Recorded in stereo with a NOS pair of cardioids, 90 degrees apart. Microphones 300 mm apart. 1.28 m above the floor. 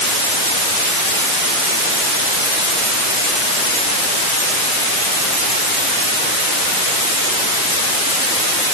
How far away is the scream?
No scream in this recording.